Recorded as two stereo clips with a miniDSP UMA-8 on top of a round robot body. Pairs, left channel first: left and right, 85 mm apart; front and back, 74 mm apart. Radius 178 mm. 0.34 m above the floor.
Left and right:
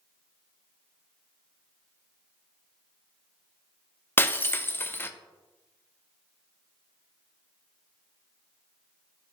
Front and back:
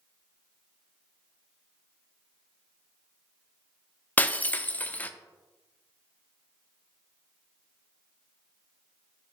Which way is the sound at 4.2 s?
50° left.